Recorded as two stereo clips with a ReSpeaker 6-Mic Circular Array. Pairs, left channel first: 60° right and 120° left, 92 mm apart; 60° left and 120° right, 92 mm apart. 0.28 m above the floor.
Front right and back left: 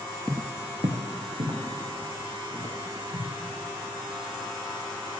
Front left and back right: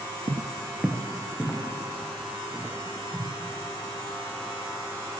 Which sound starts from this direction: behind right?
Footsteps, at 0.3 s.